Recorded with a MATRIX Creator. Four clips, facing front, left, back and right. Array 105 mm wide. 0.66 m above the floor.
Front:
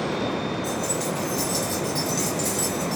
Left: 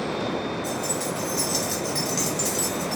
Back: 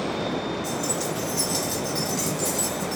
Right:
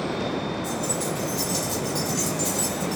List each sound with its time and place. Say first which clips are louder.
0.6 s keys jangling: even, front 1 dB; 160° left, 1.0 m; by 3.0 s 40° left, 0.9 m